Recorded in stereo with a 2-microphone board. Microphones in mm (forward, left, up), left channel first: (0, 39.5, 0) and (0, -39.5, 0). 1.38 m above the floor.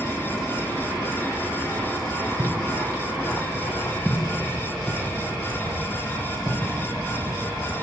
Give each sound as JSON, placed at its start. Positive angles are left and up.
{"t": 2.4, "sound": "footsteps", "side_deg": -30, "distance_m": 2.0}